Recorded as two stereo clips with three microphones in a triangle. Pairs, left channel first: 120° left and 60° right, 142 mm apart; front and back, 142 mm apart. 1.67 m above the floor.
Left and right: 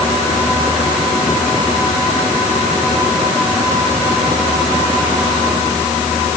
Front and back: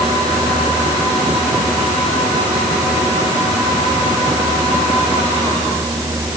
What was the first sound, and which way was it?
Only background noise.